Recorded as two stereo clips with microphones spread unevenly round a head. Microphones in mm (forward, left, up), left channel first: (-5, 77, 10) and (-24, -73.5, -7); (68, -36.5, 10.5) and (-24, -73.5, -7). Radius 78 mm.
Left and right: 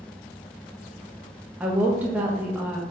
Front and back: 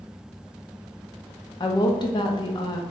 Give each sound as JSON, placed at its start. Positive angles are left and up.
{"t": 1.6, "sound": "a woman speaking", "azimuth_deg": -20, "distance_m": 0.8}